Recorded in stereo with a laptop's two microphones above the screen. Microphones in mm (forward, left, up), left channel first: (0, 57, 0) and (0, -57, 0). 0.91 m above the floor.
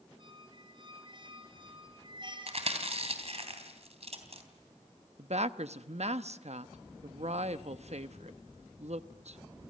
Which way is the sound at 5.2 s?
70° right (ahead or behind).